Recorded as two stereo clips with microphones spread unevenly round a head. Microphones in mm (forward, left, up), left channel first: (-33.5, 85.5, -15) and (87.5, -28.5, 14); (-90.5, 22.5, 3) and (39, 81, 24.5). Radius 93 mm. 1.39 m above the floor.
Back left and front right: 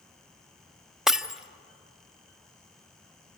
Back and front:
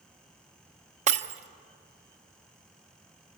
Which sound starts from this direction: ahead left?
Breaking glass, at 1.1 s.